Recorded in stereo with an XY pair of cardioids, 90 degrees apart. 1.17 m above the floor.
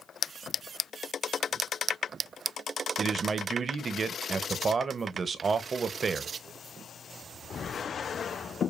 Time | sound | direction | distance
3.0 | a man speaking | 45° right | 0.6 m